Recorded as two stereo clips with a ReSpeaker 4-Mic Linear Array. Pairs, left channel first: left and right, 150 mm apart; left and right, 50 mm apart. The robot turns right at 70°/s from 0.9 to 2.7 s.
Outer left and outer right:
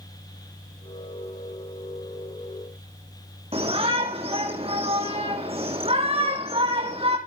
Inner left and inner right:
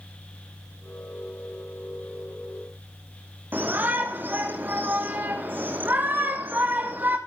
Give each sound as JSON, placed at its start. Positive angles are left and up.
{"t": 3.5, "sound": "a shout", "side_deg": -45, "distance_m": 6.0}